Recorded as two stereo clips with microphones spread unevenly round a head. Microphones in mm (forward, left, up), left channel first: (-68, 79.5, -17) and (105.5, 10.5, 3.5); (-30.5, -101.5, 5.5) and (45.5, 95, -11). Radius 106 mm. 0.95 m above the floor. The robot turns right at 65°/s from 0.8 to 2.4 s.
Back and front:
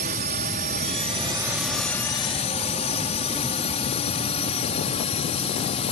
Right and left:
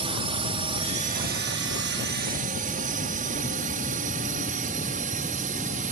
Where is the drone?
10° left; by 5.9 s 110° left.